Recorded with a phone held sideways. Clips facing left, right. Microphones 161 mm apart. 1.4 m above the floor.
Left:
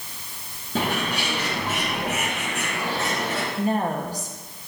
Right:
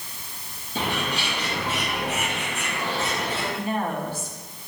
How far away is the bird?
About 4.5 m.